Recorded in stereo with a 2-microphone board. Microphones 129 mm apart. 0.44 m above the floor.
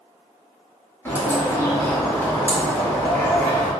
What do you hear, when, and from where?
1.1 s a bird: 15° left (ahead or behind), 1.4 m